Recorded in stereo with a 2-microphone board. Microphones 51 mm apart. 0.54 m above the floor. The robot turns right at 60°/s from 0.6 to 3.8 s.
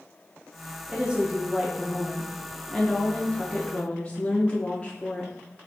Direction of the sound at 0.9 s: 25° right (ahead or behind).